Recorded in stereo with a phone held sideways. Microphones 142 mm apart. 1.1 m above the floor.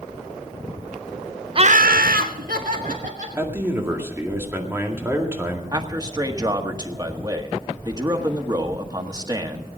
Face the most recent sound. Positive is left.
turn(degrees=-25)  # may be behind; listen again after turning